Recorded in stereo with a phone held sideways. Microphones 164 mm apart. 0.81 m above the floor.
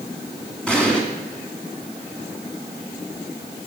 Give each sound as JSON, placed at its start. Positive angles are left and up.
{"t": 0.7, "sound": "an explosion", "side_deg": 5, "distance_m": 2.5}